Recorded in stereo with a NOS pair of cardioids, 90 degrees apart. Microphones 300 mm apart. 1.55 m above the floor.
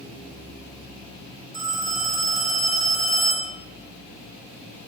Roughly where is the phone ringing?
Ahead right.